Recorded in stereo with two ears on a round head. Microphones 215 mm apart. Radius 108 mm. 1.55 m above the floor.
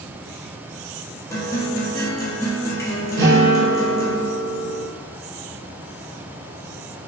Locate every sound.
1.3 s a guitar: 15° left (ahead or behind), 0.9 m
3.2 s a guitar: 45° right (ahead or behind), 1.0 m